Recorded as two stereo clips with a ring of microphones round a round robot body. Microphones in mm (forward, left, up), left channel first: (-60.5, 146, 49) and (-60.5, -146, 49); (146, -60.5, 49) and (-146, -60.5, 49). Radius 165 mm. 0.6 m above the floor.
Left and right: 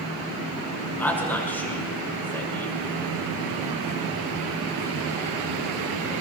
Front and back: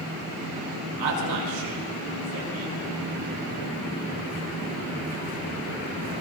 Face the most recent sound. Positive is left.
turn(degrees=175)